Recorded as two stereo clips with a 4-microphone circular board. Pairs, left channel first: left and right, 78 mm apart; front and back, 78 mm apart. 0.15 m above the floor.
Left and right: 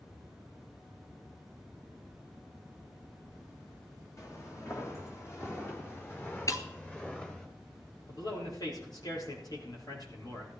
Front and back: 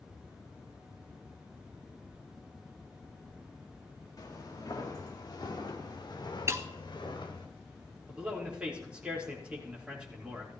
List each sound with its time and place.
4.2 s footsteps: 40° left, 3.5 m; by 7.5 s 15° left, 2.5 m
6.5 s breaking glass: 130° left, 0.8 m
8.1 s a man speaking: 105° left, 4 m